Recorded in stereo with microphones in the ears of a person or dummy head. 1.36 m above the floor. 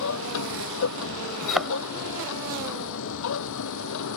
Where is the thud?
Centre (ahead or behind).